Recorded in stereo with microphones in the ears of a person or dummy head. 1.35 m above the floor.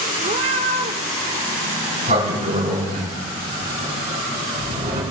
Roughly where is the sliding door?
Right.